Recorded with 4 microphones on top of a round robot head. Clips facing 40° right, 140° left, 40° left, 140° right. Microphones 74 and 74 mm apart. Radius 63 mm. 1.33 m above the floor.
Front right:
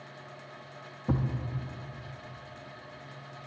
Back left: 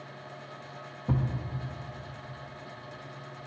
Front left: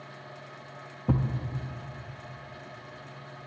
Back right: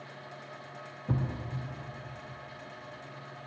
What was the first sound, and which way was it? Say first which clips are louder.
A thud: even, front left 5 dB; 40° left.